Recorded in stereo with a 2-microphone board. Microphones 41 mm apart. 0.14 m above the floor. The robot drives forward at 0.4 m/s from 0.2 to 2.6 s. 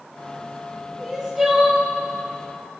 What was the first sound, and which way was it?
Crying, 10° right (ahead or behind).